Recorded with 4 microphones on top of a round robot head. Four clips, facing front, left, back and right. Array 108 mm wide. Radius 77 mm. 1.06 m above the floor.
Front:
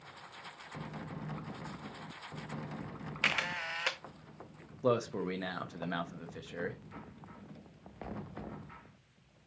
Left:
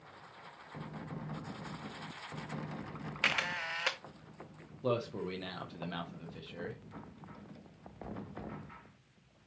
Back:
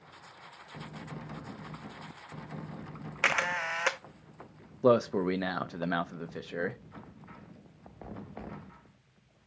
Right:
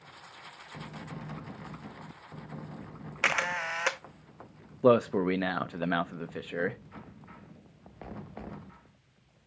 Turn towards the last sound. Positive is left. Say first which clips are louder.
# right 12 dB, back 7 dB
turn(degrees=-120)